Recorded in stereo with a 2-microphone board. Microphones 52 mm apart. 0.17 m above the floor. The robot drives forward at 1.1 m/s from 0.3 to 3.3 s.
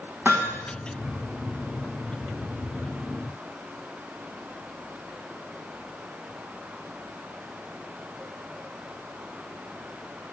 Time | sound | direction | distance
0.2 | hammering | 40° right (ahead or behind) | 4 m